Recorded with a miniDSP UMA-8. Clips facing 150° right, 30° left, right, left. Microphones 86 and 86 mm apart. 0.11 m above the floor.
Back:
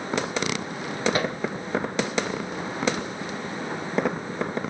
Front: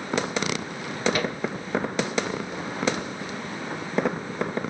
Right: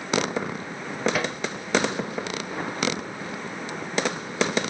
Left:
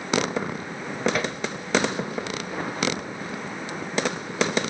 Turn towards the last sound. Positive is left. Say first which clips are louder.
# back 1 dB, even
turn(degrees=-175)